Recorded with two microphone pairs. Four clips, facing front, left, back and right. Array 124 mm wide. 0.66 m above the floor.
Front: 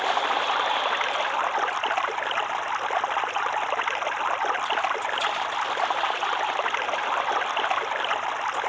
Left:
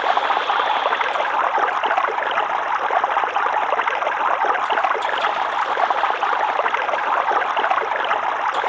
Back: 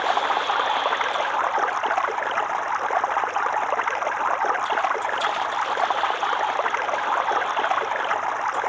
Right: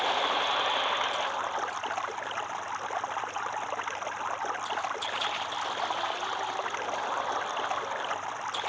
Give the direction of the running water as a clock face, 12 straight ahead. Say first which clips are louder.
Left 10 dB, back 2 dB; 9 o'clock.